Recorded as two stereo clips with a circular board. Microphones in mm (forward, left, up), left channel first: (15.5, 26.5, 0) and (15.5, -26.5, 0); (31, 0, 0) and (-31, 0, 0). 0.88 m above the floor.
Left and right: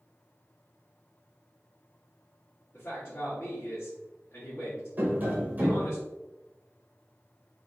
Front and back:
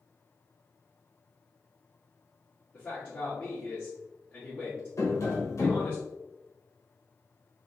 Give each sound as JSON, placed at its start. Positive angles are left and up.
{"t": 2.7, "sound": "a man speaking", "azimuth_deg": 55, "distance_m": 1.2}
{"t": 5.0, "sound": "tapping", "azimuth_deg": -35, "distance_m": 1.1}